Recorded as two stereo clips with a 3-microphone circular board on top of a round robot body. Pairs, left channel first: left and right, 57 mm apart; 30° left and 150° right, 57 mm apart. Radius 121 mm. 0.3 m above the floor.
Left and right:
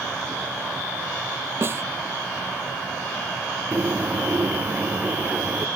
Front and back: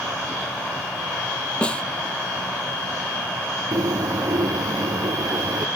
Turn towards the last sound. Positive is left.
turn(degrees=-150)